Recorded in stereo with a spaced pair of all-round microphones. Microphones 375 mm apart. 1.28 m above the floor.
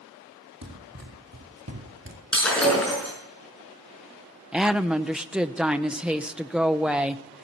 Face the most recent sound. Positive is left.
turn(degrees=-5)  # may be behind; listen again after turning